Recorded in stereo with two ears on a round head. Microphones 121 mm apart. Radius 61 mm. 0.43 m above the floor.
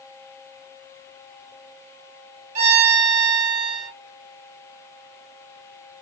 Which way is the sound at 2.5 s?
50° right (ahead or behind).